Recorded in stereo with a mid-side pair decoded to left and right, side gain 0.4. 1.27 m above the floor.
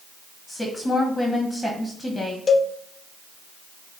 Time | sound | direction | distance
0.5 | a woman speaking | 20° left | 1.2 m
2.5 | a cowbell | 45° left | 0.6 m